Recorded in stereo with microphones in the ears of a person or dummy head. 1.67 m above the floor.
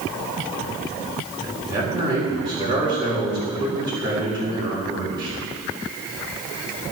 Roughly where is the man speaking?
Right.